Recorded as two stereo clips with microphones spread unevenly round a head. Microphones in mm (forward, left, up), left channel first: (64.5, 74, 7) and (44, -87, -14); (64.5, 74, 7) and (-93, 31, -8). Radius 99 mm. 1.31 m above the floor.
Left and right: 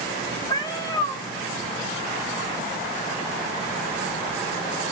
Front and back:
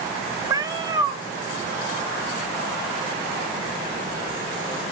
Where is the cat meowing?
130° left, 0.9 m.